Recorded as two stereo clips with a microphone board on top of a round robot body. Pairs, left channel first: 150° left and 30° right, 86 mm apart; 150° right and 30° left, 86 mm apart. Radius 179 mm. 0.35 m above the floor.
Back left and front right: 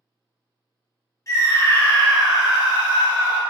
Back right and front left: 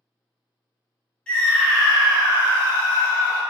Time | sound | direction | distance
1.3 | a scream | 140° left | 1.4 m